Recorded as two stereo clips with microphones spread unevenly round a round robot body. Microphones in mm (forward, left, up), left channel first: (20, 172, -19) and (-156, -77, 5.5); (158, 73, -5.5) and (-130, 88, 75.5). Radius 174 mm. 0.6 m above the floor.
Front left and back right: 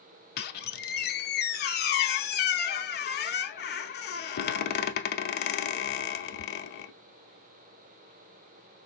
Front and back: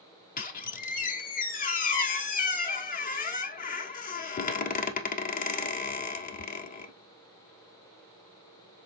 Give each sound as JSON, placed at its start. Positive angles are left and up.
{"t": 0.4, "sound": "a squeak", "azimuth_deg": 60, "distance_m": 0.5}